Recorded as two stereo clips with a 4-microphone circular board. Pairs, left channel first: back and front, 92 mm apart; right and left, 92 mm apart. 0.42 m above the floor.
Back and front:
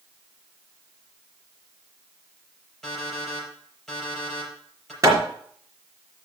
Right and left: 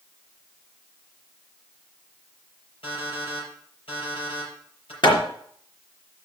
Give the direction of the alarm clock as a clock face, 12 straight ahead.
3 o'clock.